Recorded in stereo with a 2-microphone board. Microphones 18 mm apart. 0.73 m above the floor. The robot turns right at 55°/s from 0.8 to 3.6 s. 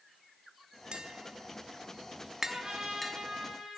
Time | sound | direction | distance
0.9 | tapping | 65° right (ahead or behind) | 0.7 m
2.5 | a trumpet | 120° right | 4 m